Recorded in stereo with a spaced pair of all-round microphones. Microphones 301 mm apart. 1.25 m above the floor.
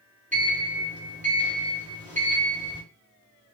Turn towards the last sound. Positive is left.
turn(degrees=-25)  # may be behind; listen again after turning